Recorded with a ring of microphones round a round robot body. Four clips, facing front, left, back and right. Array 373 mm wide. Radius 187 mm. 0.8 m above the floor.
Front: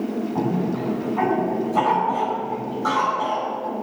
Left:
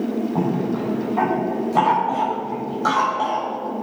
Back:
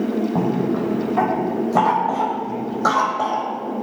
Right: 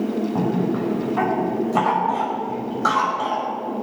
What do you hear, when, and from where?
0.3 s a cough: 165° right, 5 m